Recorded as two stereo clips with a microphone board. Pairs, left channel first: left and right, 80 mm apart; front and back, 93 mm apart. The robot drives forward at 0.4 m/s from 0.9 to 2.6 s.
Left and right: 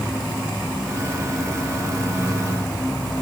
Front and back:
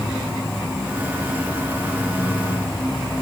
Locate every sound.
0.0 s an insect: 100° left, 3 m; by 3.2 s 115° left, 3 m